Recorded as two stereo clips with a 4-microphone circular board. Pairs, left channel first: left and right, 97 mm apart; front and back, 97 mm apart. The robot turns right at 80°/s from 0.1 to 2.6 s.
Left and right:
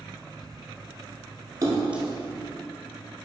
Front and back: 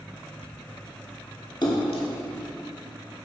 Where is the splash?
40° right, 1.2 m; by 2.0 s 5° right, 1.2 m.